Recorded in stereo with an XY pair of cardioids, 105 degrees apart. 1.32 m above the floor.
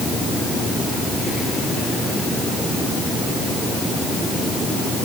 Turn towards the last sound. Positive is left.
No sound to turn to.